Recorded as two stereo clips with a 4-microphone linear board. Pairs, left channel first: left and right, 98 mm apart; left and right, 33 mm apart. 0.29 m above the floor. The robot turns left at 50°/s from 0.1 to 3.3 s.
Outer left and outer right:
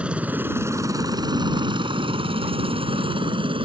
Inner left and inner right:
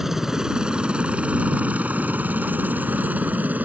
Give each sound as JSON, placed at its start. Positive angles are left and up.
{"t": 0.0, "sound": "a helicopter", "side_deg": -10}